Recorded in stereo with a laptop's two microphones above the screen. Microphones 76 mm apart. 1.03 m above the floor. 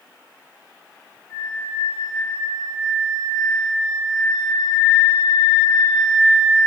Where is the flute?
45° left (ahead or behind), 1.8 m.